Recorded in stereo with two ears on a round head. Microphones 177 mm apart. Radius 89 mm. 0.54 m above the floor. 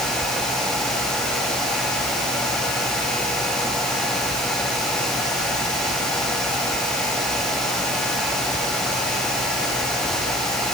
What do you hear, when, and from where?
Only background noise.